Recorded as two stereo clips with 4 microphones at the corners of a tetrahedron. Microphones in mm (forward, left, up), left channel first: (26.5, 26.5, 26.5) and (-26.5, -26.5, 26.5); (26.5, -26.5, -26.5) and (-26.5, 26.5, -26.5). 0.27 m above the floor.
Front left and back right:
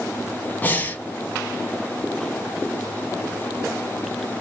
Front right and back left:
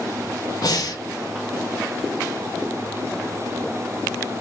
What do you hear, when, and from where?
0.6 s breathing: 20° right, 0.6 m